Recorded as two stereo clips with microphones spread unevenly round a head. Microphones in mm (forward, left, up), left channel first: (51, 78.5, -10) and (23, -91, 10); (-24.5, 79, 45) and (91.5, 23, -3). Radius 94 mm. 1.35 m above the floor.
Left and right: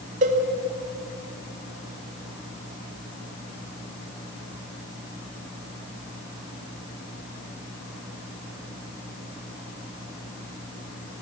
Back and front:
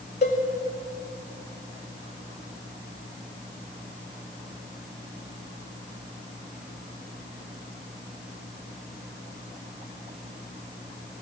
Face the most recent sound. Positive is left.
turn(degrees=-155)